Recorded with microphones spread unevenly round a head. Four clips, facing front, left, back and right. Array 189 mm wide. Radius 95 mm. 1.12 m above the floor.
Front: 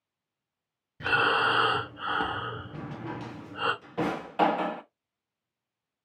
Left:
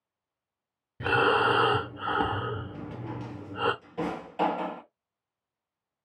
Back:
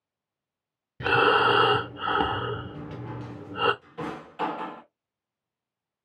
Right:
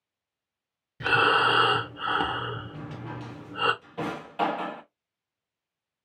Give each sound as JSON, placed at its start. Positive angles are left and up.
{"t": 1.0, "sound": "breathing", "azimuth_deg": 170, "distance_m": 0.6}
{"t": 2.7, "sound": "a drawer", "azimuth_deg": 5, "distance_m": 0.6}